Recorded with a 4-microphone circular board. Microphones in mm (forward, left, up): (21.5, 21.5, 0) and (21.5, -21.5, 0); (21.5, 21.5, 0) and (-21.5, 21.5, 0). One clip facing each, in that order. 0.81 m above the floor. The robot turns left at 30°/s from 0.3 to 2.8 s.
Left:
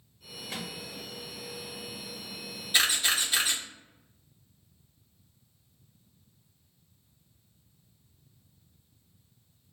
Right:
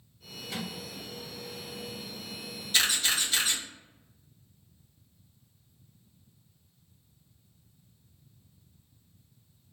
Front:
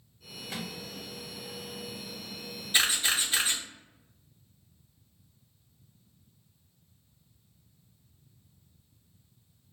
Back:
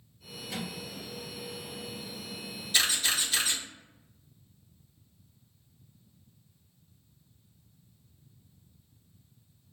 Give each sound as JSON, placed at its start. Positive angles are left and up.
{"t": 0.5, "sound": "a microwave", "azimuth_deg": 35, "distance_m": 1.2}
{"t": 2.7, "sound": "a camera shutter", "azimuth_deg": 35, "distance_m": 0.8}